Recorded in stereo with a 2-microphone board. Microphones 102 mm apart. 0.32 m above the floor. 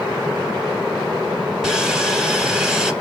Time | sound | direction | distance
1.6 | sawing | 5° right (ahead or behind) | 0.9 m